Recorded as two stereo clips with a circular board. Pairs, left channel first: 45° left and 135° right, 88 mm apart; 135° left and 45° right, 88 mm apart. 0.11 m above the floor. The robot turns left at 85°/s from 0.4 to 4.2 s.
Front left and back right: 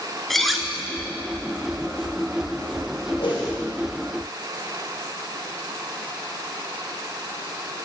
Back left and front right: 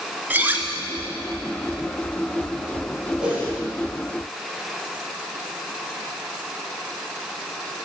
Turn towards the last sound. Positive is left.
turn(degrees=-50)